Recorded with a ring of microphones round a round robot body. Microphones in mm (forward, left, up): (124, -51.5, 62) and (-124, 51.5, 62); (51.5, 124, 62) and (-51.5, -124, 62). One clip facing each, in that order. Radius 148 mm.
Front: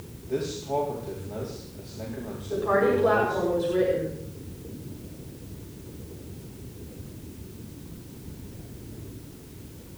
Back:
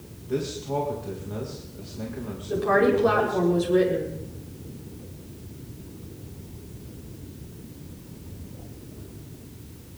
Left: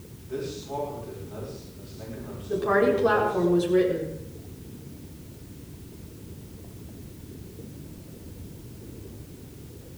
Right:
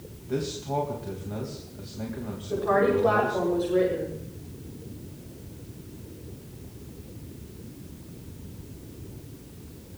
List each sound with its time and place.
0.3 s a man speaking: 135° right, 3.5 m
2.5 s a woman speaking: 115° left, 7 m